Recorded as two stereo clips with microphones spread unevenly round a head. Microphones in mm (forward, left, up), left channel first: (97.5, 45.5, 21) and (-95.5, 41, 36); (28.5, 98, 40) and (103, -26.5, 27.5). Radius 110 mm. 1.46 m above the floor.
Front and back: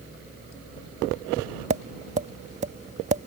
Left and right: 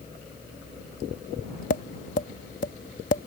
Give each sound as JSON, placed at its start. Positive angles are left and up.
{"t": 1.7, "sound": "tapping", "azimuth_deg": 140}